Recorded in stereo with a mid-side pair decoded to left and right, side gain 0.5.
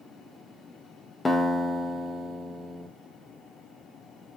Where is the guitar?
20° left, 0.7 m.